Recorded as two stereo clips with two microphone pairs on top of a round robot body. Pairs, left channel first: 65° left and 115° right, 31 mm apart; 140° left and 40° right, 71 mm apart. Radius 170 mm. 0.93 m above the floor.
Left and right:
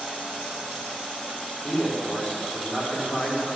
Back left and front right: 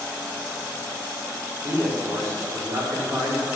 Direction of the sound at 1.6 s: 10° left.